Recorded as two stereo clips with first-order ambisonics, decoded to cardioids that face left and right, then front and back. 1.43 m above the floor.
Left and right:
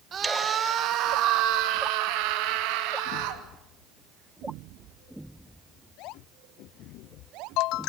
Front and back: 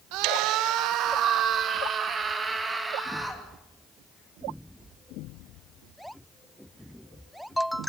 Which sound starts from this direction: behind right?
A scream, at 0.1 s.